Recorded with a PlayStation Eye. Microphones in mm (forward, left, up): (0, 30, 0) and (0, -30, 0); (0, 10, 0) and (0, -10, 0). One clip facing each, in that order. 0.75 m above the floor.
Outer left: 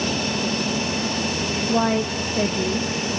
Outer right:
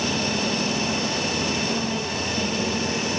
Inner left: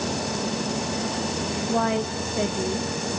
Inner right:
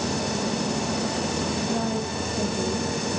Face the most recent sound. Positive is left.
turn(degrees=40)  # may be behind; listen again after turning